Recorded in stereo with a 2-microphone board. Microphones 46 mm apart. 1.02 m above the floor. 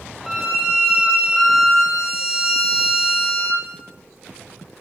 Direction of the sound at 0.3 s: 5° right (ahead or behind).